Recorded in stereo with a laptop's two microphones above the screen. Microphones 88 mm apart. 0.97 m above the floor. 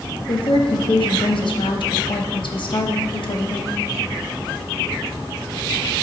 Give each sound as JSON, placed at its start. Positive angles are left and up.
{"t": 0.3, "sound": "a woman speaking", "side_deg": 65, "distance_m": 1.1}